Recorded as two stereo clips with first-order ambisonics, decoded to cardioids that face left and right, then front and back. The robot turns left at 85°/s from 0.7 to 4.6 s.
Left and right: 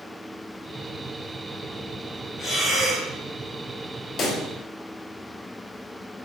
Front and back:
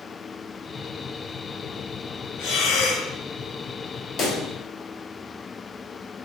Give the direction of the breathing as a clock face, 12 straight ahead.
11 o'clock.